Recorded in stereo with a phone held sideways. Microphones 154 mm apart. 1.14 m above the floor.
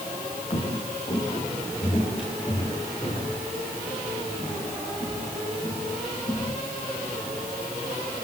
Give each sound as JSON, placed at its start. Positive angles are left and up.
{"t": 0.5, "sound": "footsteps", "side_deg": 40, "distance_m": 7.5}